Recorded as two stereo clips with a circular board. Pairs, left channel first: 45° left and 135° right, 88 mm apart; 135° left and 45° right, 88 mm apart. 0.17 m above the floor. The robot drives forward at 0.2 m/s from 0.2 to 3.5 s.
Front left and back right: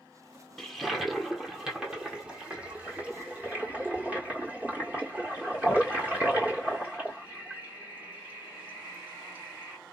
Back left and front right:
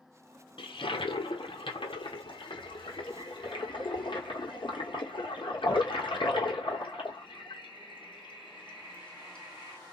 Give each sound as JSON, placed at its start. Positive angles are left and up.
{"t": 0.6, "sound": "a toilet flushing", "azimuth_deg": 130, "distance_m": 0.8}